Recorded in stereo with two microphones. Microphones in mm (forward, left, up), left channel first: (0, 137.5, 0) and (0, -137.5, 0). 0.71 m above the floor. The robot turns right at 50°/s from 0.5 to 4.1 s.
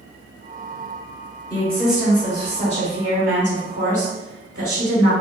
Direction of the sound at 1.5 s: 165° left.